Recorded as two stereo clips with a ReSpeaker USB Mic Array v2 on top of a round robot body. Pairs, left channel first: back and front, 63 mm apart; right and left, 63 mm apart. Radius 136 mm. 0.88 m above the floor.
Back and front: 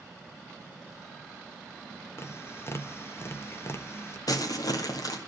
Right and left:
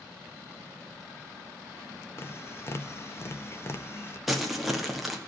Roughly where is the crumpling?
Behind.